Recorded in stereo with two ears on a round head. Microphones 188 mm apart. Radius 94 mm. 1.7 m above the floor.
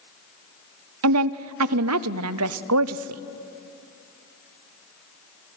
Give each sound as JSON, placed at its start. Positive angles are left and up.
{"t": 1.0, "sound": "a woman speaking", "side_deg": -75, "distance_m": 0.6}